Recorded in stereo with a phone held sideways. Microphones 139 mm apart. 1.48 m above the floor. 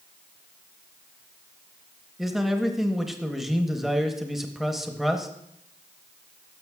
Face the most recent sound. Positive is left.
turn(degrees=-5)  # may be behind; listen again after turning